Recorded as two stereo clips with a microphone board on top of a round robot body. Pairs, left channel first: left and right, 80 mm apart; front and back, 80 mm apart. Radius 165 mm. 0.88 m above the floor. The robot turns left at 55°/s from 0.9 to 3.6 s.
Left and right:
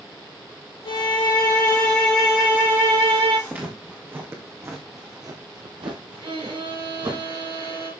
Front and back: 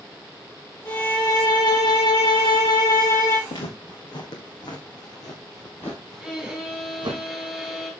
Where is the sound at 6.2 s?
95° right, 4 m.